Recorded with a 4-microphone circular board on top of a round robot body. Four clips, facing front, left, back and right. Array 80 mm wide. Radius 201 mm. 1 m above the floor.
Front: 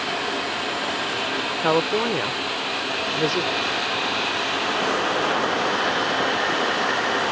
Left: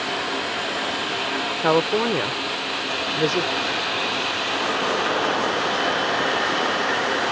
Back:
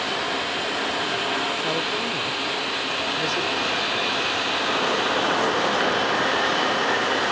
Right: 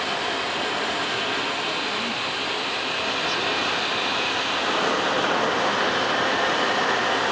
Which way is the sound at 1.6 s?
55° left.